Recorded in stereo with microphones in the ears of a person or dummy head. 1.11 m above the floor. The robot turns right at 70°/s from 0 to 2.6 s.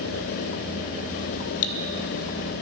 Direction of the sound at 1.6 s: 70° left (ahead or behind).